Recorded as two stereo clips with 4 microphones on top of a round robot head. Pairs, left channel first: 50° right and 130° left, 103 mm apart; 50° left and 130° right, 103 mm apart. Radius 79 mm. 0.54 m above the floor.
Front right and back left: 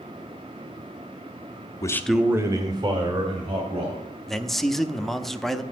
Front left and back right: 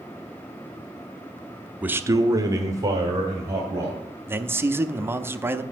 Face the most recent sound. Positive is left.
turn(degrees=-135)